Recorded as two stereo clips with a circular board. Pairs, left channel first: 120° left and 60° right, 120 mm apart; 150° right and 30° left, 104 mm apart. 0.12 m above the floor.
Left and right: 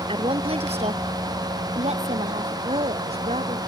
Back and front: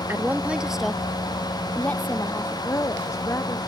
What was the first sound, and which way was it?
A woman speaking, 35° right.